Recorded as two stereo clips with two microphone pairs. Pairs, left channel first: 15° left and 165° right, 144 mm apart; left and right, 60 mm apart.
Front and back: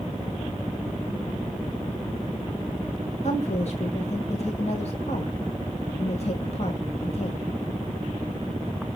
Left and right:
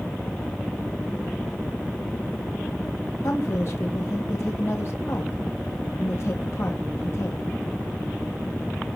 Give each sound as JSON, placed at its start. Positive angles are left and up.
{"t": 3.2, "sound": "a woman speaking", "azimuth_deg": 50, "distance_m": 1.6}